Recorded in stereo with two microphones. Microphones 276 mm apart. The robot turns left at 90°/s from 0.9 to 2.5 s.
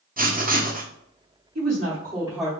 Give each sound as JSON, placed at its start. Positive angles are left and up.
{"t": 0.2, "sound": "writing", "side_deg": -30, "distance_m": 0.5}
{"t": 1.6, "sound": "a woman speaking", "azimuth_deg": -100, "distance_m": 1.0}